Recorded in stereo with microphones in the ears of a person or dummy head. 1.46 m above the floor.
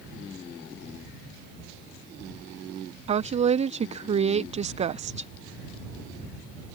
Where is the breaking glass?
I don't hear breaking glass.